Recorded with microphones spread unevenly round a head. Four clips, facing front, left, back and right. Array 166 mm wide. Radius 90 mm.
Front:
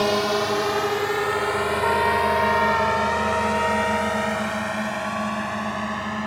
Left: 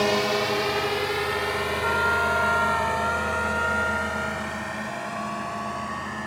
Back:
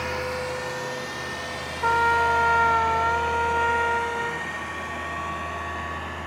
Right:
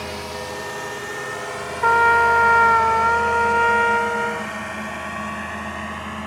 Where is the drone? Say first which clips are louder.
Left 7 dB, front 8 dB; 30° left; by 6.3 s 20° right.